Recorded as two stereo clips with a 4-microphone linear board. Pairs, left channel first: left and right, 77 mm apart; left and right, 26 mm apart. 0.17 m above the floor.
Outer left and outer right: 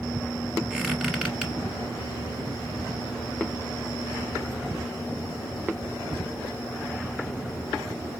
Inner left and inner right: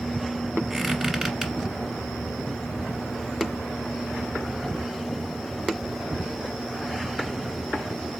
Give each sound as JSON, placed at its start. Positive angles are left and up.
{"t": 0.7, "sound": "a squeak", "side_deg": -5, "distance_m": 1.3}